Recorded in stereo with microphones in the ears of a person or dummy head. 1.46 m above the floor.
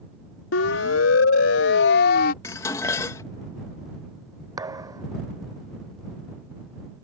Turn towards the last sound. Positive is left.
turn(degrees=-25)  # may be behind; listen again after turning